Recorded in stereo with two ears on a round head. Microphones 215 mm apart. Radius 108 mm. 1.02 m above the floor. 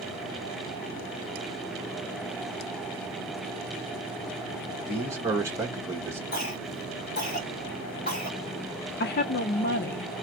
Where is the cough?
35° left (ahead or behind), 3 m.